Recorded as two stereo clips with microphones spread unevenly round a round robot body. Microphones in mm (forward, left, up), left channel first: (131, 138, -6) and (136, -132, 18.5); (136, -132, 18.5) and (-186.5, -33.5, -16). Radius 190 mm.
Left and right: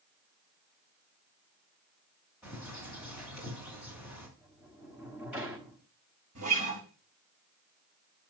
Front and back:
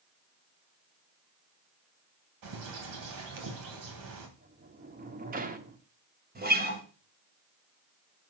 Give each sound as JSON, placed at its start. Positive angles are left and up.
{"t": 2.4, "sound": "a bird", "azimuth_deg": -175, "distance_m": 2.5}
{"t": 4.4, "sound": "a sliding door", "azimuth_deg": 180, "distance_m": 1.1}
{"t": 6.3, "sound": "a guitar", "azimuth_deg": -135, "distance_m": 3.0}